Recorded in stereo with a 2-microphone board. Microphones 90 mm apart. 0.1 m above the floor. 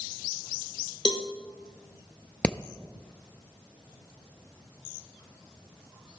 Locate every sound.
1.1 s a cowbell: 55° left (ahead or behind), 0.8 m
2.4 s hammering: 10° left (ahead or behind), 0.6 m